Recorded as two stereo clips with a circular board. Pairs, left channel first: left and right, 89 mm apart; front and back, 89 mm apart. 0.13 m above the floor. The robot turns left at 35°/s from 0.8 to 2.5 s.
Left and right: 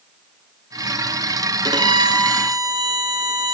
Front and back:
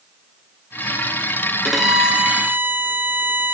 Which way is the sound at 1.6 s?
90° right.